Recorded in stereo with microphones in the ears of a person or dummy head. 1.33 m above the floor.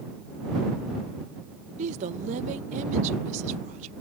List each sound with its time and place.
1.8 s a woman speaking: 45° right (ahead or behind)